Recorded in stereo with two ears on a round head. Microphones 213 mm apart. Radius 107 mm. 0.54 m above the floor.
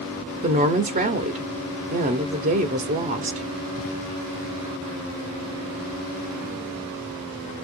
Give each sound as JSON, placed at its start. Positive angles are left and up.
{"t": 0.4, "sound": "a woman speaking", "side_deg": -35, "distance_m": 0.8}